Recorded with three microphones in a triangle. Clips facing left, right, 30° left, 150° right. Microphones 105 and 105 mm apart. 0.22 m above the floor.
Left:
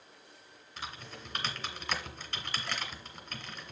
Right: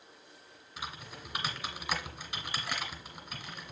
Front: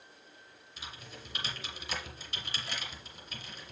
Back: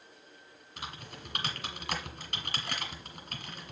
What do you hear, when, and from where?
0.8 s typing on a keyboard: 165° right, 1.6 m